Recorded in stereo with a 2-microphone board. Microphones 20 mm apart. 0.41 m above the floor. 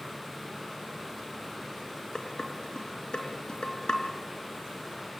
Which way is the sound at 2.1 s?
40° left (ahead or behind).